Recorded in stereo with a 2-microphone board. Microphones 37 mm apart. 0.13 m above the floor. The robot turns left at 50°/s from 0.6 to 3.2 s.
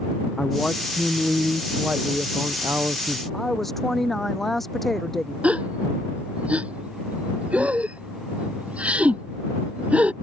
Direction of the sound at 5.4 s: 35° right (ahead or behind).